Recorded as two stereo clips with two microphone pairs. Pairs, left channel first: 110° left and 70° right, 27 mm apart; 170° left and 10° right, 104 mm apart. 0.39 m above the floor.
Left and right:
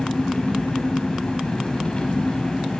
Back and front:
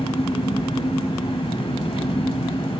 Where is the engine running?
160° left, 1.1 m.